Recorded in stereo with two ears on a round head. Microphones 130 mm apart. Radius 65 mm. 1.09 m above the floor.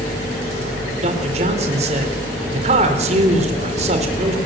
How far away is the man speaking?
About 4 m.